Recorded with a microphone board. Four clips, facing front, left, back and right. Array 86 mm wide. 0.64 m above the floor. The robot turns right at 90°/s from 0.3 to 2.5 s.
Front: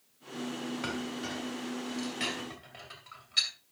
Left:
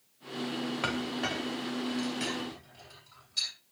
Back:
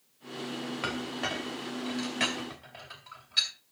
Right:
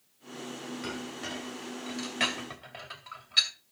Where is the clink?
125° left, 2.5 m; by 3.5 s 85° right, 2.5 m.